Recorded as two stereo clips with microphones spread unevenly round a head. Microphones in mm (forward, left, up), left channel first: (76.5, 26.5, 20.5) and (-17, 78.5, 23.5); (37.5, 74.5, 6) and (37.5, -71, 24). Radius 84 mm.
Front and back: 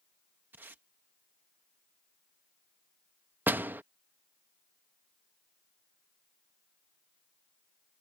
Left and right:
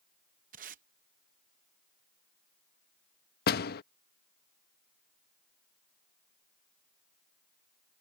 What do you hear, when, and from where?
0.5 s tape being pulled: 135° right
3.5 s a door slam: 80° left